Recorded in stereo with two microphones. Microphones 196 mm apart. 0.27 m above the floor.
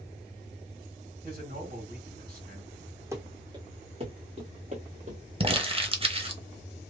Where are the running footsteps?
15° right (ahead or behind), 1.1 m; by 5.2 s 40° right (ahead or behind), 2 m.